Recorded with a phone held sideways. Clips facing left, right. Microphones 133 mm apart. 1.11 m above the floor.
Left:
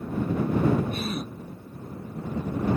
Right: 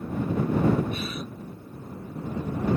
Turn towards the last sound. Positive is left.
turn(degrees=45)  # may be behind; listen again after turning